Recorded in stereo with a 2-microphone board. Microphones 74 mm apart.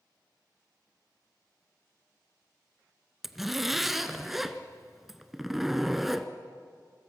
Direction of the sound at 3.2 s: 5° right (ahead or behind).